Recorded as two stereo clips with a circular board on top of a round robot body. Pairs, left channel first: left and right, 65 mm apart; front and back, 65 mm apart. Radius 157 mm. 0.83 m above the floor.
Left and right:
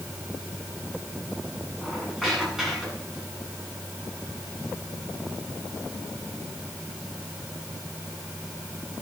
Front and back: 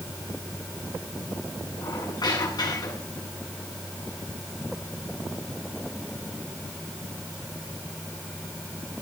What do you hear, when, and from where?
1.8 s a squeak: 10° right, 8 m